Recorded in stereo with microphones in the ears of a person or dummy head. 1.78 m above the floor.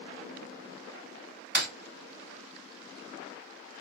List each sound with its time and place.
1.6 s breaking glass: 5° right (ahead or behind), 2.0 m